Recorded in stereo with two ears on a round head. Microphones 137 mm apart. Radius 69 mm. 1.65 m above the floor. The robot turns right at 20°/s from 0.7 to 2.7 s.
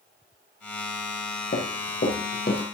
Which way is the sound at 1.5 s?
50° left (ahead or behind).